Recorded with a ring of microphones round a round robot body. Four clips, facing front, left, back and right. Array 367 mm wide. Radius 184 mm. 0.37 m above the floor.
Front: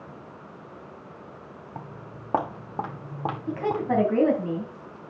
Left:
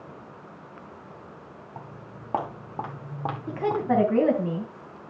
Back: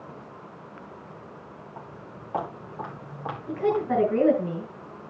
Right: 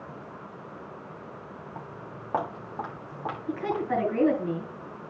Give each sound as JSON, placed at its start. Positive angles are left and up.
{"t": 1.8, "sound": "footsteps", "azimuth_deg": 5, "distance_m": 3.5}
{"t": 3.5, "sound": "a woman speaking", "azimuth_deg": 60, "distance_m": 3.5}